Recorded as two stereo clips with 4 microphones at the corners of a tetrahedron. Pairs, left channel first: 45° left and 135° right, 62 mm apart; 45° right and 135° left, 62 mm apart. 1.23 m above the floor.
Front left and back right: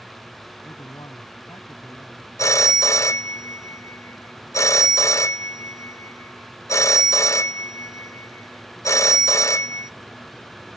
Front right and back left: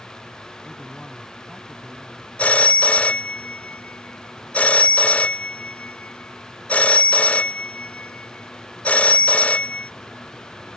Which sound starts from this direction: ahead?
A phone ringing, at 2.4 s.